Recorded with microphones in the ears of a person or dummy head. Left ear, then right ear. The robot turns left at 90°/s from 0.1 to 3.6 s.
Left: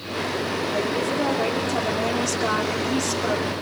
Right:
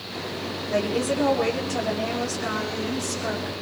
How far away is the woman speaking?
About 4.5 m.